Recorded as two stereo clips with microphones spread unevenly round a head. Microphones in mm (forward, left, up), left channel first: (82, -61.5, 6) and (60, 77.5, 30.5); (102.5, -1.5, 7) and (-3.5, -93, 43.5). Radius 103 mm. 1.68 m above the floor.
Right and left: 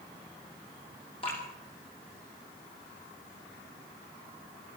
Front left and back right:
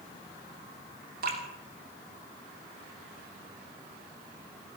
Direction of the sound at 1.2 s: 150° right.